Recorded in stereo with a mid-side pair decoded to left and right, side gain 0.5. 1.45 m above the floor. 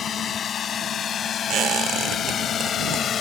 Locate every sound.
0.0 s a drone: 50° left
1.5 s a squeak: 70° right